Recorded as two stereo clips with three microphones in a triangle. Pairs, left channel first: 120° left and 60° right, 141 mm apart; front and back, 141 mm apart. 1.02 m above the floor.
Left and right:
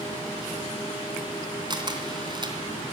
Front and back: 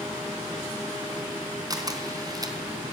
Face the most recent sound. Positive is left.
turn(degrees=-120)